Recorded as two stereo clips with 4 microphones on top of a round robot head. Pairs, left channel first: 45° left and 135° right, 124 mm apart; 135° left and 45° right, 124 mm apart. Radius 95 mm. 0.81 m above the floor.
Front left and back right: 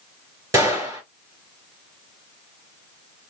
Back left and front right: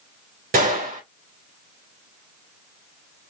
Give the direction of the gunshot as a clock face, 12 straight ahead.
2 o'clock.